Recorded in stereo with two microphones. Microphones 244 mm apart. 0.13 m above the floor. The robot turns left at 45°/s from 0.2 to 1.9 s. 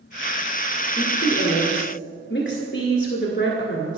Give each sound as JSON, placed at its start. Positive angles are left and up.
{"t": 1.0, "sound": "a woman speaking", "side_deg": 35, "distance_m": 1.6}